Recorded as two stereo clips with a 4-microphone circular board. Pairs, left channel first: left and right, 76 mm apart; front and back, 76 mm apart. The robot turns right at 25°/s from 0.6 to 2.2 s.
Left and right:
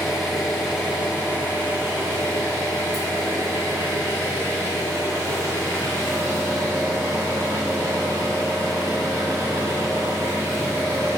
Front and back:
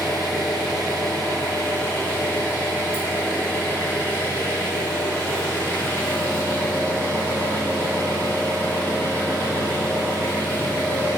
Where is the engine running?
175° right, 1.9 m; by 11.2 s 135° right, 1.9 m.